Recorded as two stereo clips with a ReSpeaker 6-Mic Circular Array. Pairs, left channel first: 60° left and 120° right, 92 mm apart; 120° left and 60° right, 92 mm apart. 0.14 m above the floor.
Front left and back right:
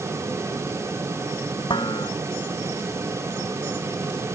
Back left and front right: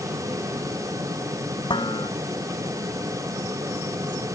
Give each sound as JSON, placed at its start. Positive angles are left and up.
{"t": 1.7, "sound": "dishes clattering", "azimuth_deg": 90}